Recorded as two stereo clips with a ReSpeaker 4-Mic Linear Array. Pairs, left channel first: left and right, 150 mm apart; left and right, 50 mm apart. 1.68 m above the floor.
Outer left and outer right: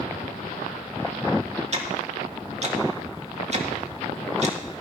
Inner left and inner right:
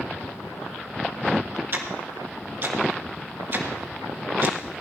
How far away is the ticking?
About 1.6 m.